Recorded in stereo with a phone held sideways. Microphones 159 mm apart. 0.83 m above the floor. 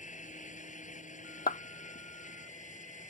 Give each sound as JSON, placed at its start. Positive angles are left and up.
{"t": 0.0, "sound": "a fan", "side_deg": 50}
{"t": 1.5, "sound": "a clap", "side_deg": 65}